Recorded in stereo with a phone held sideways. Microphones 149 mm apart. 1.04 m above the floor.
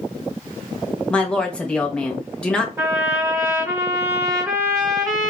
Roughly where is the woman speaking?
Centre.